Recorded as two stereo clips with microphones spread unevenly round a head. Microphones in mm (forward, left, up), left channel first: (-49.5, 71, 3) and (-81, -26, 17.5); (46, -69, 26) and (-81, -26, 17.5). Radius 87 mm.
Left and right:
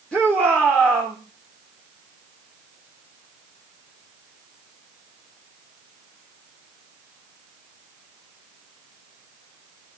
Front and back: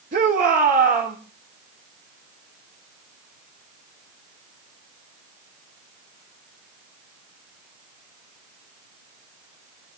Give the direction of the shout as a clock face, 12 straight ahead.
7 o'clock.